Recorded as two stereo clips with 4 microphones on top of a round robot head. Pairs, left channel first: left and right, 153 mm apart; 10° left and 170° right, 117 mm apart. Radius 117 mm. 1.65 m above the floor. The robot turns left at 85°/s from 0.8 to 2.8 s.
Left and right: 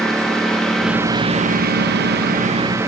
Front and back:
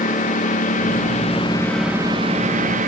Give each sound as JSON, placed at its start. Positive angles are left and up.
{"t": 0.0, "sound": "a lawn mower", "azimuth_deg": 5}